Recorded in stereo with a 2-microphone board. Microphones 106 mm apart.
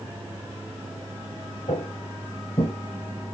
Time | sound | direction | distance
1.7 | footsteps | 75° left (ahead or behind) | 2.5 m